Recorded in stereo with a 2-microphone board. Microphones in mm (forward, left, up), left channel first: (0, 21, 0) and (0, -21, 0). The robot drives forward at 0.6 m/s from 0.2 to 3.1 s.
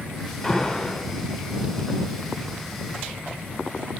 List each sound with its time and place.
0.4 s an alarm: 20° left (ahead or behind), 1.4 m; by 1.1 s 15° left (ahead or behind), 1.7 m